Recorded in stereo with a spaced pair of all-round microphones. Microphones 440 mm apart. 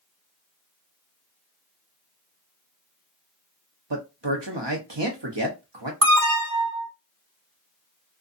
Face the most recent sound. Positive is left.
turn(degrees=-45)  # may be behind; listen again after turning